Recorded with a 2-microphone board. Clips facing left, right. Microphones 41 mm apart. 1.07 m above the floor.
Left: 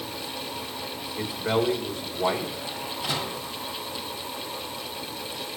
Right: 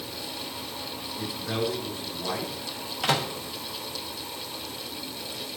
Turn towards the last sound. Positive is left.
turn(degrees=-80)